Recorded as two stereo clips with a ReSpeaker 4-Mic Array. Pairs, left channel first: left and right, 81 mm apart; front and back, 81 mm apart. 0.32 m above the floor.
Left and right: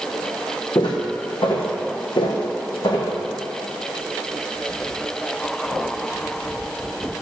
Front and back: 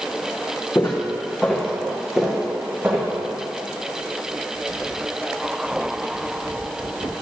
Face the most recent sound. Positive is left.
turn(degrees=115)